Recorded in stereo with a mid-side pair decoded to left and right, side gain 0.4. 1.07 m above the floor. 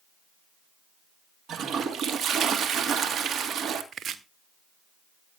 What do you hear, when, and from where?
1.5 s a toilet flushing: 65° right, 2 m
3.9 s chopping: 65° right, 1.4 m